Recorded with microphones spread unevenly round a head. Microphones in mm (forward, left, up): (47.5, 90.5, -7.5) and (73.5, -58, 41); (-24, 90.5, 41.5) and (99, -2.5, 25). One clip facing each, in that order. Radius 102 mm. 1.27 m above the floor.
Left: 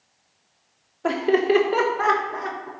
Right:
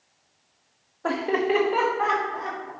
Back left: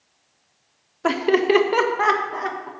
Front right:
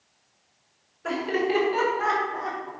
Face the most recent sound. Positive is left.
turn(degrees=140)